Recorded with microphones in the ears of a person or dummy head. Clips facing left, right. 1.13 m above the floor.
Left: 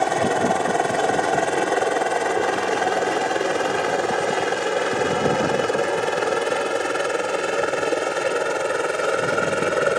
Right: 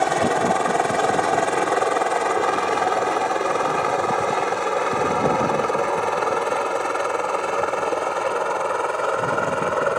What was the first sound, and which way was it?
A helicopter, centre (ahead or behind).